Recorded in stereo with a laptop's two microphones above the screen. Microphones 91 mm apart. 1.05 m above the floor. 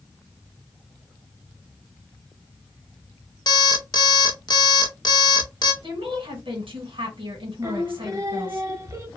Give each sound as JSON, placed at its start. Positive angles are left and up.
{"t": 3.5, "sound": "an alarm clock", "side_deg": 50, "distance_m": 0.5}
{"t": 5.8, "sound": "a woman speaking", "side_deg": -70, "distance_m": 1.3}
{"t": 7.6, "sound": "singing", "side_deg": -35, "distance_m": 0.7}